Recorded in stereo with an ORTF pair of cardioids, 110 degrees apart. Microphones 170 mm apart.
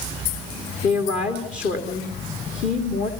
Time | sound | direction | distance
0.8 | a woman speaking | 50° left | 3 m